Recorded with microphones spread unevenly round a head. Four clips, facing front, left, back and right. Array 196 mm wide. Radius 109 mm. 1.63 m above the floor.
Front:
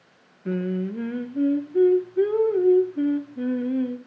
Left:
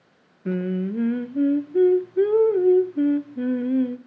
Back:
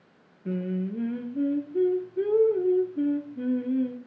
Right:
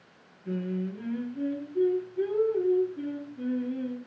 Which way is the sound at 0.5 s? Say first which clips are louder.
Left 7 dB, front 3 dB; 70° left.